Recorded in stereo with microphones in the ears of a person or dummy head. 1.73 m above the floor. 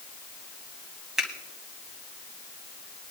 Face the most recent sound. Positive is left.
turn(degrees=0)  # may be behind; listen again after turning